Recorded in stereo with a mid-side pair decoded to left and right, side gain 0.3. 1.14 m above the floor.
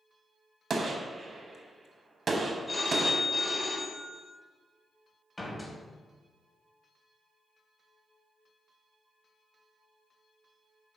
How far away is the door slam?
About 1.3 m.